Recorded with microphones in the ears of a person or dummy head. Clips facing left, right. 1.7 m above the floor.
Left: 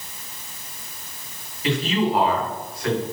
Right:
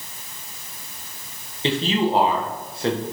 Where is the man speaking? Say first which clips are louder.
Right 1 dB; 30° right (ahead or behind), 1.8 m.